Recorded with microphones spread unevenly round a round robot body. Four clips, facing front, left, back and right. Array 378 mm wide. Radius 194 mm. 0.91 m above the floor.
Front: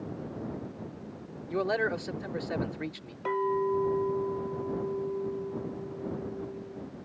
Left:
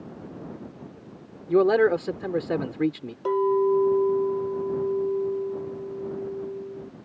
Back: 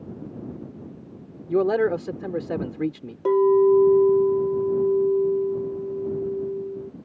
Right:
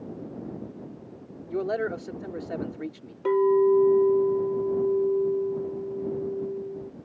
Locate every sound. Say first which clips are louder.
1.5 s a man speaking: left 9 dB, back 9 dB; 120° left
3.2 s a clink: right 2 dB, back 12 dB; 170° right